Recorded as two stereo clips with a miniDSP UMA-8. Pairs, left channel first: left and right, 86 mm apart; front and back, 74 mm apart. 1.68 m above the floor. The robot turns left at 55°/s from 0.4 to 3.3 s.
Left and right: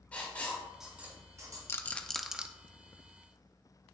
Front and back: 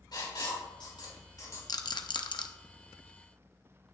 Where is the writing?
15° left, 3 m; by 1.6 s 50° right, 3 m.